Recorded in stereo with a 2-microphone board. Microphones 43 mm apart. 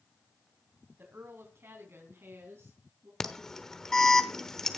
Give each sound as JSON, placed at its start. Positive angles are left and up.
{"t": 1.0, "sound": "a woman speaking", "side_deg": -60, "distance_m": 3.0}
{"t": 3.2, "sound": "an alarm", "side_deg": 10, "distance_m": 1.0}